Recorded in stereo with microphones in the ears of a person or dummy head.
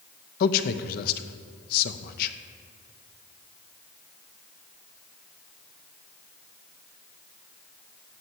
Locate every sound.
0.4 s a man speaking: 55° left (ahead or behind), 0.9 m